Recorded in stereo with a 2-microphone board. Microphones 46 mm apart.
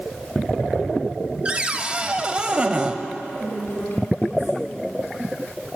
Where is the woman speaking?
55° left (ahead or behind), 2.5 m.